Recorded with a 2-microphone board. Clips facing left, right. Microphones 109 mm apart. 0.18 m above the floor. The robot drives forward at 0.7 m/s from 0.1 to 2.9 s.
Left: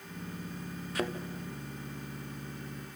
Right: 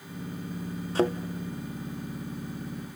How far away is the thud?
About 1.5 m.